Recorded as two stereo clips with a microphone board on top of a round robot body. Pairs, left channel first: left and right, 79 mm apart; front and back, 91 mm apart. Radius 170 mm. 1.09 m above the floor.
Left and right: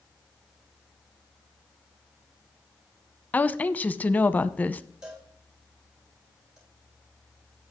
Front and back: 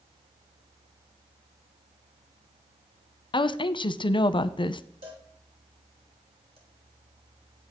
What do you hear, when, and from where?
3.3 s a woman speaking: 20° left, 0.8 m
5.0 s a cowbell: 170° right, 3.5 m